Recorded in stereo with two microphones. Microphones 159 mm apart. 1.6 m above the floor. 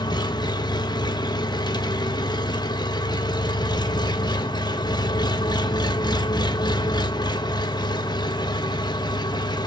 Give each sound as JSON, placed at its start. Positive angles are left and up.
{"t": 0.0, "sound": "an engine running", "side_deg": 25, "distance_m": 1.3}